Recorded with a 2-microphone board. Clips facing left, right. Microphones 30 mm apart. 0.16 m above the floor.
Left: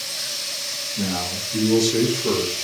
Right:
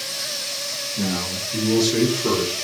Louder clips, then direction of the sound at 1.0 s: Right 1 dB; 15° left (ahead or behind).